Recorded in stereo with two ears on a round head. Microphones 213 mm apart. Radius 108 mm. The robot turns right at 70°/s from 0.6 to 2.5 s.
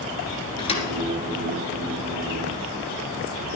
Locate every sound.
0.6 s a thud: 20° left (ahead or behind), 2.5 m; by 0.9 s 35° left (ahead or behind), 2.5 m